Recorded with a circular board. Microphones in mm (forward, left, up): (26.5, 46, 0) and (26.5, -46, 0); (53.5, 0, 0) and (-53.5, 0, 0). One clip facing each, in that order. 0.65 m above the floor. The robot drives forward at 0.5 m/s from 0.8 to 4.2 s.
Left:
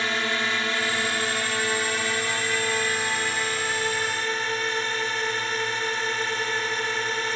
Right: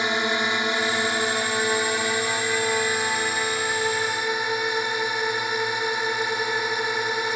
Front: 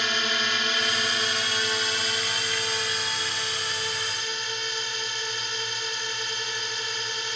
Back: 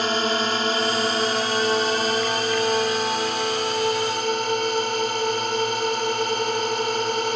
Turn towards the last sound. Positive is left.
turn(degrees=-165)